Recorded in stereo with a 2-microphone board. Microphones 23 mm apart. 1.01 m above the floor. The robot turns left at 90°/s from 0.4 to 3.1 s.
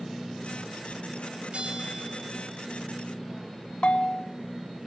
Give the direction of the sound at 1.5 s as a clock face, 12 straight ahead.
2 o'clock.